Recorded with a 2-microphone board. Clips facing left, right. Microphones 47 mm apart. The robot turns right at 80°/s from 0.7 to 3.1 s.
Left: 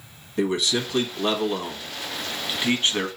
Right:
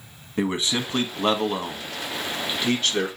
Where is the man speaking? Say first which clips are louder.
Left 1 dB; 30° right (ahead or behind), 1.3 m; by 3.1 s 30° left (ahead or behind), 1.3 m.